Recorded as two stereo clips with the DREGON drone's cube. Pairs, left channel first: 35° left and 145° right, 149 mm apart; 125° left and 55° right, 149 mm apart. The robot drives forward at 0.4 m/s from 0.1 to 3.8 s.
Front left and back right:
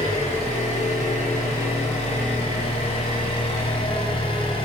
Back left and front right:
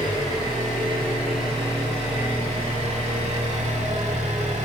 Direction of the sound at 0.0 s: 10° right.